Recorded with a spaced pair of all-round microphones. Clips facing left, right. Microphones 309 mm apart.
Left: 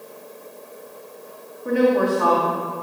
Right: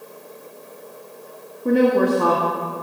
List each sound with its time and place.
1.6 s a woman speaking: 40° right (ahead or behind), 2.5 m